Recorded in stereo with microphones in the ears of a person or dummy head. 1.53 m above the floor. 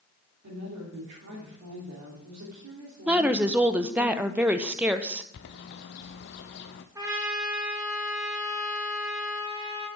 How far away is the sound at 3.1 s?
About 0.8 m.